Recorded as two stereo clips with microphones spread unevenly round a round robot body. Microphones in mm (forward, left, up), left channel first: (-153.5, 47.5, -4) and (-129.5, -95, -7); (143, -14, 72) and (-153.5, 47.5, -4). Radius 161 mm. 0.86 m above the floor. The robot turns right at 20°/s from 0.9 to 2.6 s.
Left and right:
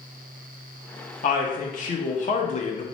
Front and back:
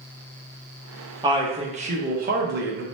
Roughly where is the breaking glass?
No breaking glass in this recording.